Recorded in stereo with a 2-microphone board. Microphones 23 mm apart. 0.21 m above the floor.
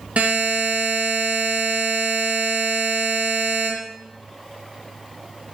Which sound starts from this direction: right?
A buzzer, at 0.2 s.